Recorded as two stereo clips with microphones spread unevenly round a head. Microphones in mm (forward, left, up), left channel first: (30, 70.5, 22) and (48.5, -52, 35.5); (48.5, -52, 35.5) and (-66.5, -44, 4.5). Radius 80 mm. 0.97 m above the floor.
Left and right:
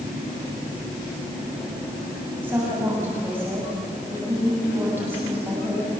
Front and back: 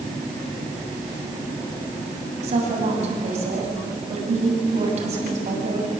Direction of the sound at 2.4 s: 160° right.